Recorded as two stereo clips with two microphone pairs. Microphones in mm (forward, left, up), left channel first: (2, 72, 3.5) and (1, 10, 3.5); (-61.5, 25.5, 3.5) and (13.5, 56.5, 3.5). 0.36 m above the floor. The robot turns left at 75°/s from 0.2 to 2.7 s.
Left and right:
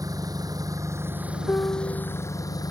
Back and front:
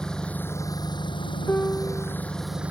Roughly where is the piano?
Behind left.